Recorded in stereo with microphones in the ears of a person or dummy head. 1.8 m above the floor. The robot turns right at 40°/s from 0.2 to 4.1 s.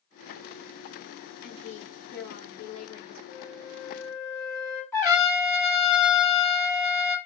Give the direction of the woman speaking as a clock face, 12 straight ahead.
9 o'clock.